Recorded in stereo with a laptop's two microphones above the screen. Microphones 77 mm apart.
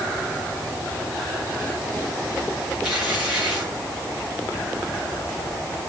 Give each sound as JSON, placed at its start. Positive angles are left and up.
{"t": 2.8, "sound": "tearing paper", "side_deg": -10, "distance_m": 4.0}